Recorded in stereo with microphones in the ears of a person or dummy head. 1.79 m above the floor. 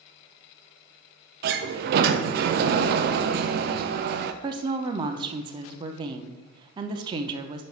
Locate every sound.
1.4 s a sliding door: 60° right (ahead or behind), 0.6 m
4.4 s a woman speaking: 35° right (ahead or behind), 0.6 m